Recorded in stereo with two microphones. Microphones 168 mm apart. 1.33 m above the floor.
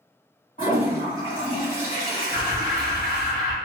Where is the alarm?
50° left (ahead or behind), 1.7 m.